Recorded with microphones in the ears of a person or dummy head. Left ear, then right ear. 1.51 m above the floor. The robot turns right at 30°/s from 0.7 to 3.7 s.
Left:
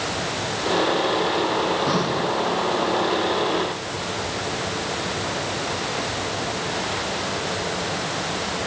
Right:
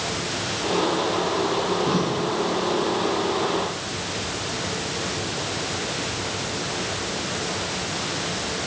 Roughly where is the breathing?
Left.